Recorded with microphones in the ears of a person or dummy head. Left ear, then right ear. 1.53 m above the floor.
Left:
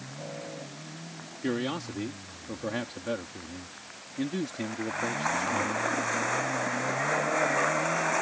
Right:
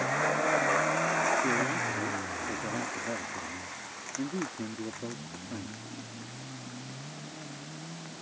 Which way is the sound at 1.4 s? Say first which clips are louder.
Right 4 dB; 85° left.